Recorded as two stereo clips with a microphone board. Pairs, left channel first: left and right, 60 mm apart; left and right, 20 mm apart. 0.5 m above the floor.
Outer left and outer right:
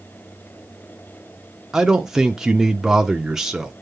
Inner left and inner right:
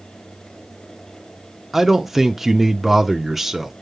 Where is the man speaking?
10° right (ahead or behind), 0.7 m.